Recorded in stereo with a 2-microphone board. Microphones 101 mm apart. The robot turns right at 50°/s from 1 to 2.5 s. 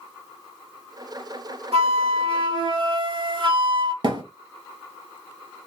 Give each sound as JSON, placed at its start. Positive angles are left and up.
{"t": 1.7, "sound": "a flute", "azimuth_deg": -90, "distance_m": 1.6}
{"t": 4.0, "sound": "a thud", "side_deg": -45, "distance_m": 1.9}